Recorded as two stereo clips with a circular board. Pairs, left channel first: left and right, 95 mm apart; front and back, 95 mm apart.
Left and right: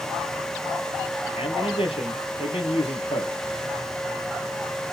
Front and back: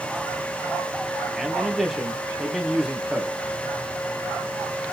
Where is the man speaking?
90° left, 2 m.